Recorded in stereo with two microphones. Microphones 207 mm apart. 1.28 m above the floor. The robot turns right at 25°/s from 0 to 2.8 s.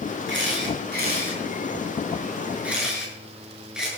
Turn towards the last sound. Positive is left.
turn(degrees=-5)  # may be behind; listen again after turning